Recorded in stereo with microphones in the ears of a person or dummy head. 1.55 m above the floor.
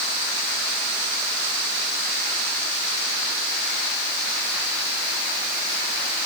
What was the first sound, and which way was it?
Only background noise.